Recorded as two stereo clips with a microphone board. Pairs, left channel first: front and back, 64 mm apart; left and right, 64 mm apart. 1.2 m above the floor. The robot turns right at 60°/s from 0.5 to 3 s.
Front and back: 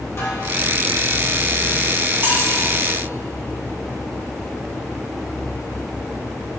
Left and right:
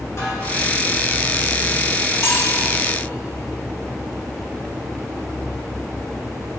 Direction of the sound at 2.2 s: 130° left.